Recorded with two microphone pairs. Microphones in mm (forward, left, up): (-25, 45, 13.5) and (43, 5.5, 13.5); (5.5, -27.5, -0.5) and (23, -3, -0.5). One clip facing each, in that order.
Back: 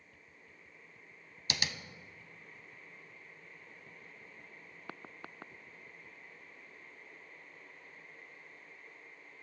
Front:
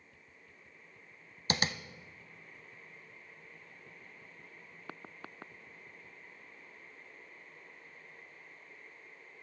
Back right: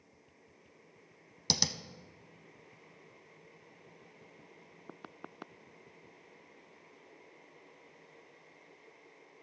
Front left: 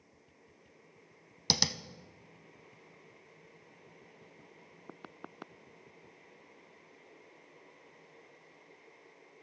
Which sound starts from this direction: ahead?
Tapping, at 1.5 s.